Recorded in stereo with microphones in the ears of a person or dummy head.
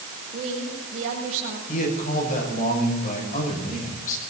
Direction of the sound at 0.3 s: 40° right (ahead or behind).